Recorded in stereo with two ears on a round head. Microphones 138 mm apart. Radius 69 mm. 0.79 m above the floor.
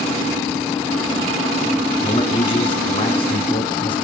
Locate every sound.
2.0 s a man speaking: 35° left (ahead or behind), 6.5 m